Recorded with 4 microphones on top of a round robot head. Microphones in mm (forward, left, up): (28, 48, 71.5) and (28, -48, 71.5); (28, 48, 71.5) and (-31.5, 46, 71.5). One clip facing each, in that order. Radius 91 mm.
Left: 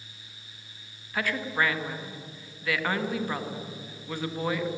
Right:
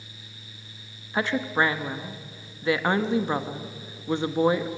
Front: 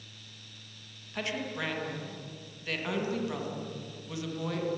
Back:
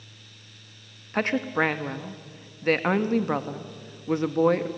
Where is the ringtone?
I don't hear a ringtone.